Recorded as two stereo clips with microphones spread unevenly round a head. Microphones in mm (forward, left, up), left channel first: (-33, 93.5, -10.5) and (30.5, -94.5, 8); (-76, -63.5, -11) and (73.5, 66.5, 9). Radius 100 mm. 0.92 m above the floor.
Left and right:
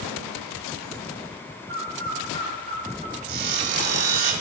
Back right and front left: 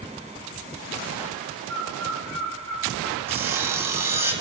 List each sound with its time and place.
1.7 s a bird: 10° right, 2 m
3.3 s sawing: 35° right, 1.8 m